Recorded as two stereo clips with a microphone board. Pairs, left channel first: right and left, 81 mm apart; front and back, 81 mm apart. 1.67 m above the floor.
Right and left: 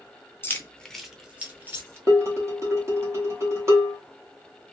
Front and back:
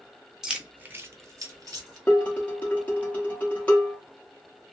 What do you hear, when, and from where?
0.4 s keys jangling: 100° right, 0.6 m; by 2.0 s 145° left, 1.0 m
2.1 s dishes clattering: 65° left, 1.1 m